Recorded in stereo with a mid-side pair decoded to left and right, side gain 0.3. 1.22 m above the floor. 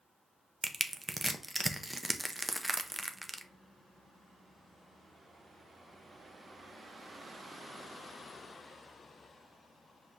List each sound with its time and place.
0.6 s crushing: 20° right, 0.6 m